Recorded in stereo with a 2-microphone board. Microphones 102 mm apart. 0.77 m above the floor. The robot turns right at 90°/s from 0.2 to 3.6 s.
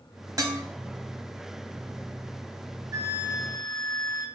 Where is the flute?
50° right, 0.7 m; by 4.3 s 15° left, 0.7 m.